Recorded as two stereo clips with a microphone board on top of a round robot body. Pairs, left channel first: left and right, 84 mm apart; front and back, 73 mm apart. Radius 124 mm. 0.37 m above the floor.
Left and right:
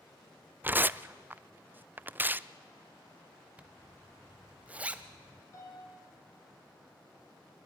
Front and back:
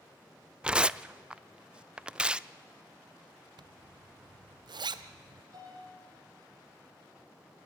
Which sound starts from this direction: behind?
A zipper, at 3.6 s.